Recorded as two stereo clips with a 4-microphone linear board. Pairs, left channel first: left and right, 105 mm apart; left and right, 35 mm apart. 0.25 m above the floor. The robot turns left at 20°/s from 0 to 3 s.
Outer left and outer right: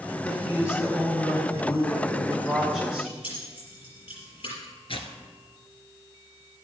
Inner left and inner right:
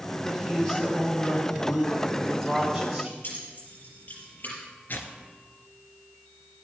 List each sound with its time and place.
0.2 s a woman speaking: 45° left, 2.5 m; by 3.1 s 10° right, 2.5 m
3.2 s keys jangling: 60° left (ahead or behind), 5.5 m
4.9 s tearing paper: 60° left (ahead or behind), 1.3 m